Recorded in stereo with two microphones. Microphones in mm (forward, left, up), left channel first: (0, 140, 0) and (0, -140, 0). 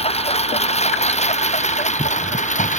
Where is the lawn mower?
20° left (ahead or behind); by 2.8 s 25° left (ahead or behind).